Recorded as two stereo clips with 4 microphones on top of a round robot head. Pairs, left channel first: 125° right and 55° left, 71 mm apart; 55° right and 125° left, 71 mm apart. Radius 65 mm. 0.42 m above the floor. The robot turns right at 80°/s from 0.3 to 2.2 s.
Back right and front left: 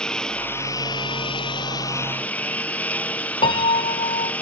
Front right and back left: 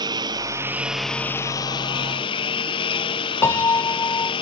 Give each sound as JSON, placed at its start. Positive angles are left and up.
{"t": 0.0, "sound": "a lawn mower", "azimuth_deg": 155}
{"t": 3.4, "sound": "a piano", "azimuth_deg": -115}